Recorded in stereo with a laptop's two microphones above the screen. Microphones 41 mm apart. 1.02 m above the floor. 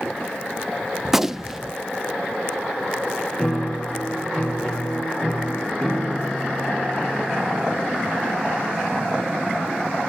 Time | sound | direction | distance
1.1 | a gunshot | 10° right (ahead or behind) | 0.7 m
3.4 | a piano | 15° left (ahead or behind) | 4 m